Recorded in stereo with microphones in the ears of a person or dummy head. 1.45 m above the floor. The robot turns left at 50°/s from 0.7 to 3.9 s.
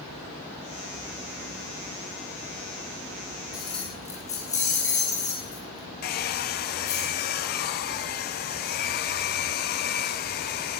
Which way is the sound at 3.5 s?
5° right (ahead or behind).